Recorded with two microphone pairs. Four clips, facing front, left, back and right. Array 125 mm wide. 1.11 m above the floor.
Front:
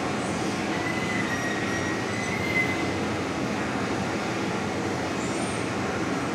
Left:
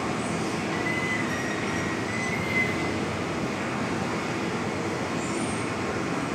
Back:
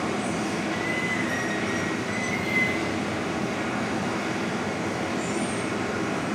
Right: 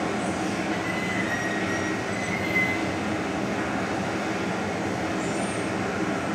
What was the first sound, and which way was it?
Running water, 90° right.